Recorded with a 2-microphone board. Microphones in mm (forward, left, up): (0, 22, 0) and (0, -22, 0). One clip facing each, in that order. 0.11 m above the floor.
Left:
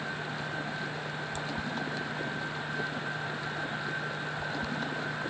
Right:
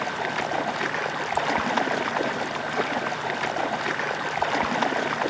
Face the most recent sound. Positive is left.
turn(degrees=-75)  # may be behind; listen again after turning